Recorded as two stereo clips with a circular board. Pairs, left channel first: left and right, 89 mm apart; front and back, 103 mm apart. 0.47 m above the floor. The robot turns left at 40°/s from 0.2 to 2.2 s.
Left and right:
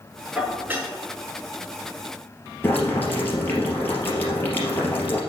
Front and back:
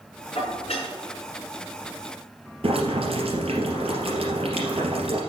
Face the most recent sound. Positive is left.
turn(degrees=160)